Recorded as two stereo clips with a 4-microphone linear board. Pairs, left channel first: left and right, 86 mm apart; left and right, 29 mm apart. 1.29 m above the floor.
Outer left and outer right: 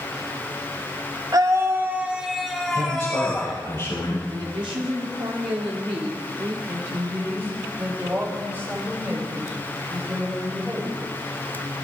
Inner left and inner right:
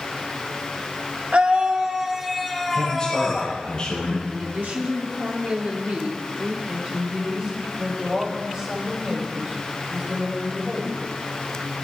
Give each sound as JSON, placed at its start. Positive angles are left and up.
{"t": 1.3, "sound": "a scream", "side_deg": -45, "distance_m": 1.2}
{"t": 2.7, "sound": "a man speaking", "side_deg": 30, "distance_m": 6.5}
{"t": 4.3, "sound": "a woman speaking", "side_deg": -80, "distance_m": 3.0}
{"t": 6.7, "sound": "a woman speaking", "side_deg": -25, "distance_m": 6.5}